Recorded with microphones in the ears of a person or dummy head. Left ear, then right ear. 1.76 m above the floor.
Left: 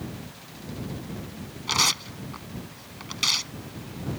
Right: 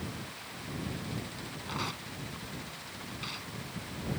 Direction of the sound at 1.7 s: 80° left.